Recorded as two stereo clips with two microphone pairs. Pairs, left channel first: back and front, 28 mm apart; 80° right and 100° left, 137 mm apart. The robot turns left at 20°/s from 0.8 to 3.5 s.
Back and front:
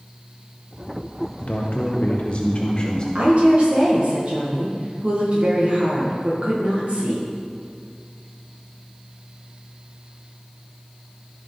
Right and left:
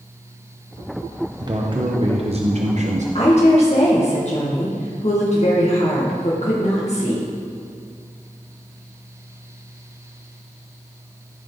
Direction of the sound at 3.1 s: 35° right.